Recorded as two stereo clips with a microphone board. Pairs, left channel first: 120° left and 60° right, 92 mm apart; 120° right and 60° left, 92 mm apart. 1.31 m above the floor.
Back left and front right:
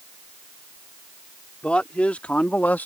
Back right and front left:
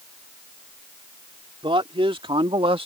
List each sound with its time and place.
1.6 s a man speaking: 40° left; by 2.9 s 50° left